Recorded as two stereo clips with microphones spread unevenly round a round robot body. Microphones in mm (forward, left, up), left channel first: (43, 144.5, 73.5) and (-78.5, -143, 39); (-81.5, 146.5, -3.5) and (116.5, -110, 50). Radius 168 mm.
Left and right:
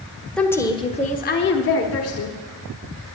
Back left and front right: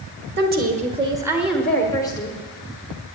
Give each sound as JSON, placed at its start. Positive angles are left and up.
{"t": 0.4, "sound": "a woman speaking", "azimuth_deg": -30, "distance_m": 1.3}